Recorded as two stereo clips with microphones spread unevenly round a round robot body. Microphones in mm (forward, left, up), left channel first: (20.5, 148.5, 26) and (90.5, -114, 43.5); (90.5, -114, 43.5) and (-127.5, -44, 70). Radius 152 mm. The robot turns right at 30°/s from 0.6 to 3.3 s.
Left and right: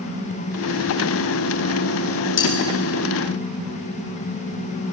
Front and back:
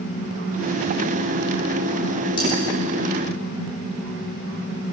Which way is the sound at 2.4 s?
55° left.